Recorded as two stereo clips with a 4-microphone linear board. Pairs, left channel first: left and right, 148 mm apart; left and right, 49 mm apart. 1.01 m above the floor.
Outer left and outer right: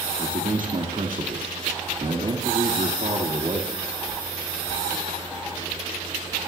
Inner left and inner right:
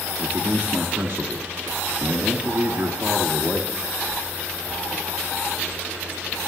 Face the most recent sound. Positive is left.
turn(degrees=-65)  # may be behind; listen again after turning